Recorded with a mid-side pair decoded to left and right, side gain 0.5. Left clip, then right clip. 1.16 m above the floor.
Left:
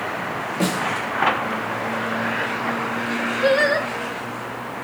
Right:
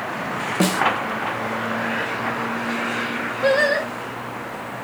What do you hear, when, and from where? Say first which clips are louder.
0.6 s a snare drum: right 3 dB; 40° right, 0.5 m
3.4 s singing: even; 5° right, 1.0 m